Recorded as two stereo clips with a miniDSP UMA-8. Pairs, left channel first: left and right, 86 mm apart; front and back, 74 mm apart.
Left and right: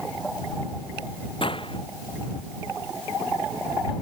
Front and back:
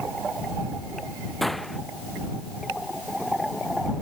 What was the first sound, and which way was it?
A gunshot, 90° left.